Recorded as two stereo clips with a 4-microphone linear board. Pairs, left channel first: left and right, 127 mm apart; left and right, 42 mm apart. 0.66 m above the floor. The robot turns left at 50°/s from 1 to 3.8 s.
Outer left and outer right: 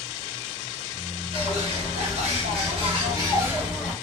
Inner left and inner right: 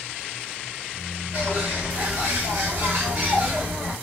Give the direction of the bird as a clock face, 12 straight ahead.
2 o'clock.